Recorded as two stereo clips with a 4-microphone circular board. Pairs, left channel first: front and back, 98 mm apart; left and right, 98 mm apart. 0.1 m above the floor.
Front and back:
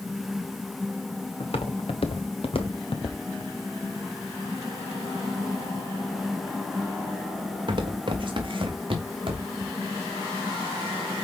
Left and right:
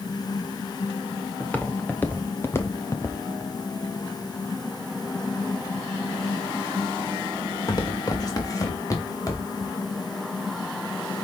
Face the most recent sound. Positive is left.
turn(degrees=150)